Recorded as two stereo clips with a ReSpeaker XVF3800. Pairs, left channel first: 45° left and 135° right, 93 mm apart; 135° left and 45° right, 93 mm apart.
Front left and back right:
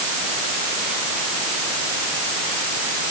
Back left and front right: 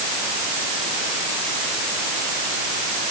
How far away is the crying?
I don't hear crying.